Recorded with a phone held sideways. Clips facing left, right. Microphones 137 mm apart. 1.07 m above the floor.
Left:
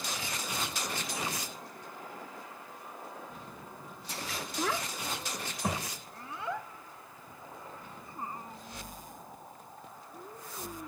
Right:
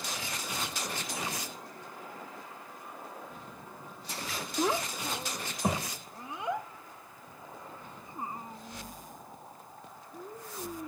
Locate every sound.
4.6 s a child speaking: 25° right (ahead or behind); by 10.9 s 15° right (ahead or behind)